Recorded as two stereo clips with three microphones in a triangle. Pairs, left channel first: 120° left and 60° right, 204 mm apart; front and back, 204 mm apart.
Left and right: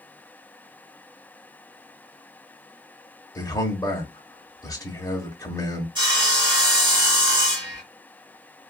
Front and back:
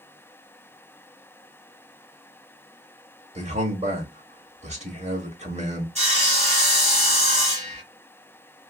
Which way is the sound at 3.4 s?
175° left.